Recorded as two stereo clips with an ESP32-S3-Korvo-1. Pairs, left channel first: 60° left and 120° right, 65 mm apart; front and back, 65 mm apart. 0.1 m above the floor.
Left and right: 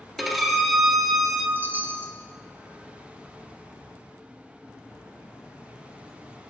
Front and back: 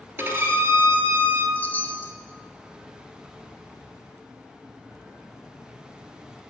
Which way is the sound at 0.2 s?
150° left.